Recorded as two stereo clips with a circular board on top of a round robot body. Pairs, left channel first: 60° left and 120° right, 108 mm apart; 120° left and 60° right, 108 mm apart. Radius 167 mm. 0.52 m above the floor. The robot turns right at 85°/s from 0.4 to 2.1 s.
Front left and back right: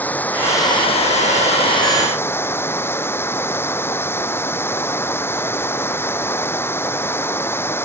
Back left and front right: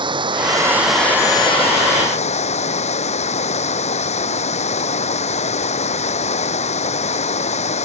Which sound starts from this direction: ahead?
Running water, at 0.0 s.